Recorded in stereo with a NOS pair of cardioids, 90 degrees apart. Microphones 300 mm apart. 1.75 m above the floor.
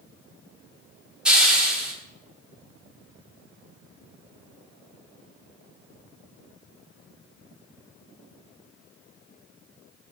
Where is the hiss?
Straight ahead, 0.8 m.